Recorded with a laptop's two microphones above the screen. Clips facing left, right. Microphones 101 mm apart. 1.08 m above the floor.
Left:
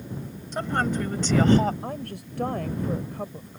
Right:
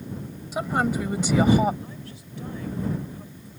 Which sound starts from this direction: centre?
A woman speaking, at 0.5 s.